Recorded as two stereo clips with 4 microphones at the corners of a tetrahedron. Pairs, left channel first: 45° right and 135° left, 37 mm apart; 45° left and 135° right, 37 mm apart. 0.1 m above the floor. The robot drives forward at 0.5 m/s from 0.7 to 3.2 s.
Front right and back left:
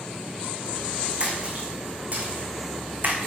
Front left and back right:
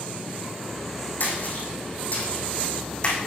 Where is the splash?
80° left, 2.5 m; by 3.2 s 105° left, 2.5 m.